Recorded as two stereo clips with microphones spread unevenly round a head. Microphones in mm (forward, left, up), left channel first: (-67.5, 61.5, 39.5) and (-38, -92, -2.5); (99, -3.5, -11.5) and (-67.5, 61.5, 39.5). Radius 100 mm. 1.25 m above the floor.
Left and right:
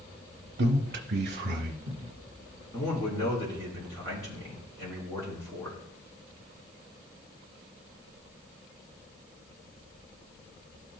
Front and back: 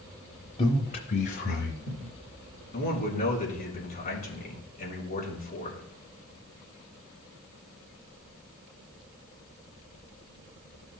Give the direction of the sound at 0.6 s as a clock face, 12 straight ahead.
2 o'clock.